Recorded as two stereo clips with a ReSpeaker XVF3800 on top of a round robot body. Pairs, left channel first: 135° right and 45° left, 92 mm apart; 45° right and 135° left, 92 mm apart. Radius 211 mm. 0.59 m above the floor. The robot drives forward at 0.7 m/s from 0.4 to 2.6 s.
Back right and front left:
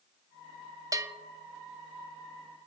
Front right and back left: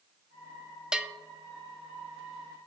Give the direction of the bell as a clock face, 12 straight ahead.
10 o'clock.